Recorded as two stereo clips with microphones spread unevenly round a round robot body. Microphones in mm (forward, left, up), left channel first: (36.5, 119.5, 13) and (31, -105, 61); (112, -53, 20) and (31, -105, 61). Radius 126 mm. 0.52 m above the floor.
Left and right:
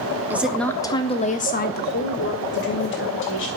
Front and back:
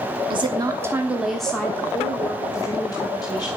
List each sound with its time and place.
0.3 s a woman speaking: 175° left, 1.2 m; by 3.5 s 70° left, 3 m